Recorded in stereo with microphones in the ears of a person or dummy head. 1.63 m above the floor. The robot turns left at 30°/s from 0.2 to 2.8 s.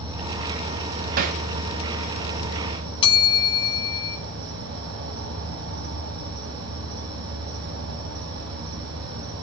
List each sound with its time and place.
0.0 s an insect: 30° right, 3 m; by 9.4 s 110° right, 3 m
1.2 s hammering: 50° right (ahead or behind), 0.7 m; by 1.4 s 40° right (ahead or behind), 0.7 m
3.0 s a bell: 25° left (ahead or behind), 1.6 m